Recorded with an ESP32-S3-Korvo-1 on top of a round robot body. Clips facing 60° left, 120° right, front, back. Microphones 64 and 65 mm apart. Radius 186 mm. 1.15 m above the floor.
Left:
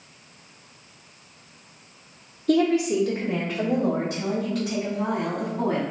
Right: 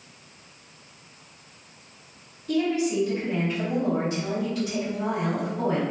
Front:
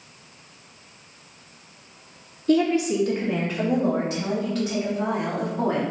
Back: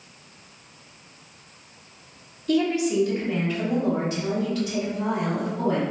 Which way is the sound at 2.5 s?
55° left.